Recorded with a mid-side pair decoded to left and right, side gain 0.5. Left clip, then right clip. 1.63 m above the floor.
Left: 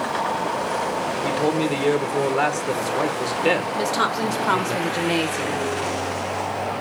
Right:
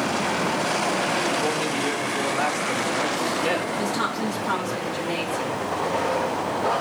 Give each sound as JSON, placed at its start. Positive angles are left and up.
{"t": 1.2, "sound": "a man speaking", "azimuth_deg": 60, "distance_m": 1.3}
{"t": 3.8, "sound": "a woman speaking", "azimuth_deg": 60, "distance_m": 1.4}